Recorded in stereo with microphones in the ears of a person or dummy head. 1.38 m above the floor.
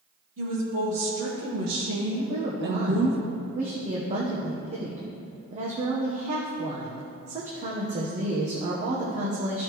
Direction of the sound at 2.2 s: 45° right (ahead or behind).